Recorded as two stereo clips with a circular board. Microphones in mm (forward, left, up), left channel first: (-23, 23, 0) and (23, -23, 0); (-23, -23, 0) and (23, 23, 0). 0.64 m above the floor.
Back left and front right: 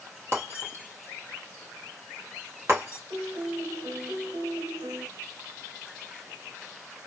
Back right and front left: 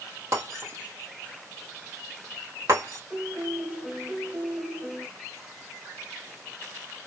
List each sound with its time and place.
0.3 s breaking glass: 5° left, 2.5 m
3.1 s a piano: 35° right, 1.2 m